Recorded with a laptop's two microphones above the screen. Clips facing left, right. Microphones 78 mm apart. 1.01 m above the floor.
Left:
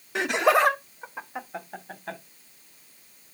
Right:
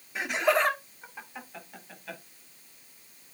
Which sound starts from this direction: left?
Laughter, at 0.1 s.